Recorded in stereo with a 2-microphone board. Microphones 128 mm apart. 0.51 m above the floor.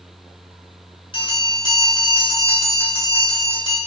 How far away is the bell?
About 1.0 m.